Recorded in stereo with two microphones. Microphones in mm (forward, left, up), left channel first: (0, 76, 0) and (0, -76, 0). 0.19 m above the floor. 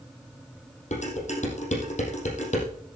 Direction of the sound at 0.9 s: 55° left (ahead or behind).